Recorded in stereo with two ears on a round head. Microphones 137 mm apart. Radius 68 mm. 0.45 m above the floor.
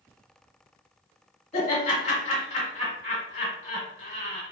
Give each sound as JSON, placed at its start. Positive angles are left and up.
{"t": 1.5, "sound": "laughter", "side_deg": 40, "distance_m": 1.6}